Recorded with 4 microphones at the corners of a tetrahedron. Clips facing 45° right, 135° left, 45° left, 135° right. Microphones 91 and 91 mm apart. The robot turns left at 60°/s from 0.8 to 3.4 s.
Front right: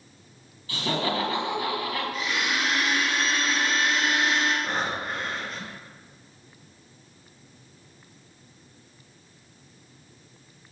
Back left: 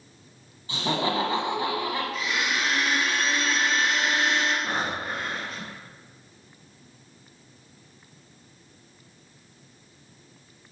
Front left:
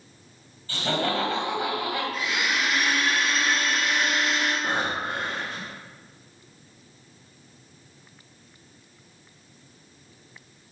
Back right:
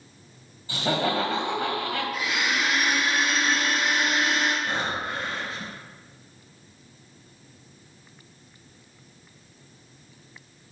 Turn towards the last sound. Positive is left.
turn(degrees=50)